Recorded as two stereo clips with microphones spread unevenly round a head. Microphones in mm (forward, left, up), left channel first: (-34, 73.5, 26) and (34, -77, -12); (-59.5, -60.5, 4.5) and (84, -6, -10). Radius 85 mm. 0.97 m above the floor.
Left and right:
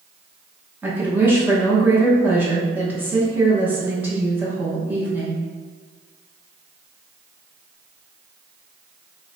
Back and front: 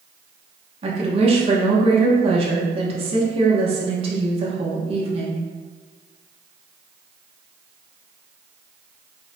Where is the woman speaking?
5° right, 1.1 m.